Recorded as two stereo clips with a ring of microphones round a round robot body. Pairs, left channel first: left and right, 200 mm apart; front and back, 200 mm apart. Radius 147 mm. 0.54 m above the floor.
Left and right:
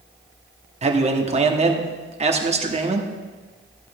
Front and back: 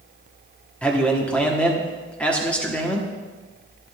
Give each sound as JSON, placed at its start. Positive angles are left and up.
{"t": 0.8, "sound": "a man speaking", "azimuth_deg": -80, "distance_m": 1.2}